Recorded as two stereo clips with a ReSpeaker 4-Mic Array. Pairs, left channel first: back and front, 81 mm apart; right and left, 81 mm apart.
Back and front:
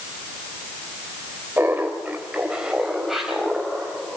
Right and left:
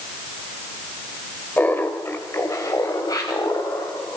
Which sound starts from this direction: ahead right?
Laughter, at 1.6 s.